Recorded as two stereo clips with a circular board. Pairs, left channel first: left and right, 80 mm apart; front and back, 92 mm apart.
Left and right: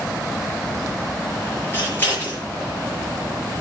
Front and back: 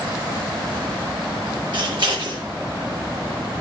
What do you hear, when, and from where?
1.7 s scissors: 150° left, 6.5 m